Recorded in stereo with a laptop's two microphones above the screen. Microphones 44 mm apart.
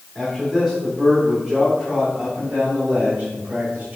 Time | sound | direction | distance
0.1 | a man speaking | centre (ahead or behind) | 3 m